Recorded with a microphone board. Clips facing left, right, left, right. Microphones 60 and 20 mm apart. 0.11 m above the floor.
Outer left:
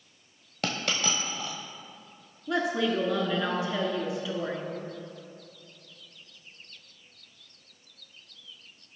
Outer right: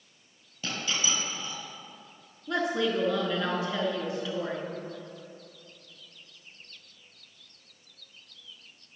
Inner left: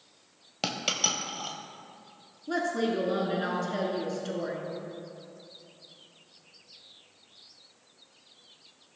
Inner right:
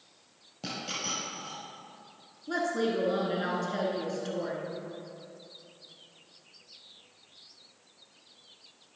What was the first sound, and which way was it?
A dropped coin, 60° left (ahead or behind).